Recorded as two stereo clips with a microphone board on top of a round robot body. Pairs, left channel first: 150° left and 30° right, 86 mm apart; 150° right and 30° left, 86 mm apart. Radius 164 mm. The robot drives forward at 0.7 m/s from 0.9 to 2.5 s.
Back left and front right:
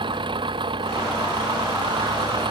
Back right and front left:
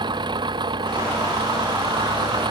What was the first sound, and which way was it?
An engine running, 5° right.